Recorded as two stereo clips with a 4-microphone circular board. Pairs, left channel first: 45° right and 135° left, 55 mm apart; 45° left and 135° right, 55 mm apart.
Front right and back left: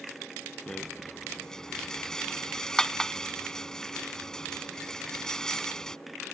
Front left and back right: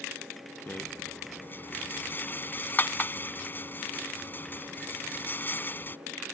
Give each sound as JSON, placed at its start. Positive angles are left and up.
{"t": 0.7, "sound": "a rattle", "azimuth_deg": 25}